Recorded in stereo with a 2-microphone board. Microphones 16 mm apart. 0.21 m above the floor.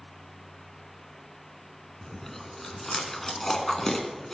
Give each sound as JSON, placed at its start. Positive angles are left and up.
{"t": 2.0, "sound": "chewing", "side_deg": 20, "distance_m": 2.5}